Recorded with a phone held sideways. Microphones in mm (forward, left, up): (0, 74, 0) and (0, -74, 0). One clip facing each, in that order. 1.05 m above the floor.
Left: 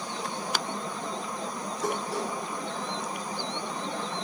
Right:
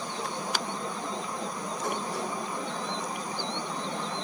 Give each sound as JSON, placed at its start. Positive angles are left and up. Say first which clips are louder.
{"t": 1.8, "sound": "dishes clattering", "louder": "left 3 dB", "side_deg": 80, "distance_m": 8.0}